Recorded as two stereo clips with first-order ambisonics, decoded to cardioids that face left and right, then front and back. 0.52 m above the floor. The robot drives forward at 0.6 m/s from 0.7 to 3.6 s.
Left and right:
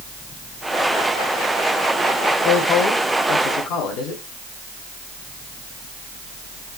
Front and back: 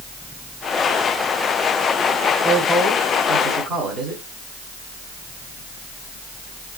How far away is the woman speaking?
About 2.5 m.